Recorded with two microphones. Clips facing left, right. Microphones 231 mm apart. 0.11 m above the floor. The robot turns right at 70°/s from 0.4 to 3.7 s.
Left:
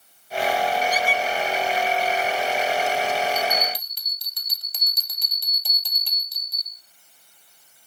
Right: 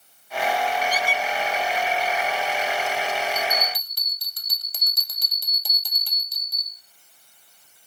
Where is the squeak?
25° left (ahead or behind), 1.1 m; by 1.2 s 45° left (ahead or behind), 1.1 m.